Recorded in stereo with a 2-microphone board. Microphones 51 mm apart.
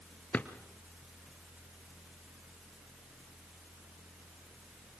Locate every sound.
0.3 s a drawer: 25° left (ahead or behind), 1.2 m